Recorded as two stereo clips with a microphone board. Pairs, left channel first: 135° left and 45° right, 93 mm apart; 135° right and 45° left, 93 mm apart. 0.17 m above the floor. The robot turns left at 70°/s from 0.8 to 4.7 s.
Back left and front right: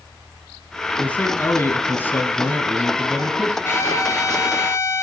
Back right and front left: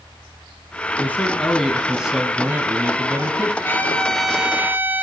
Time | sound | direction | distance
1.0 | a man speaking | 170° right | 1.1 m
3.6 | a trumpet | 175° left | 1.1 m